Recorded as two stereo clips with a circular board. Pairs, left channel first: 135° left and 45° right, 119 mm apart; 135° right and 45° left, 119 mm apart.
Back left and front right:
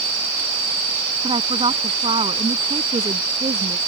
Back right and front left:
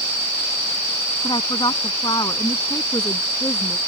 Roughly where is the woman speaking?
Right.